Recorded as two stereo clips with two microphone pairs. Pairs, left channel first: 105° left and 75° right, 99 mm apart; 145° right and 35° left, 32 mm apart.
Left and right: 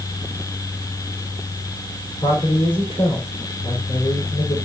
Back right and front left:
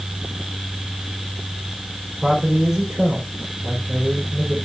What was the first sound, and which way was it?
A man speaking, 105° left.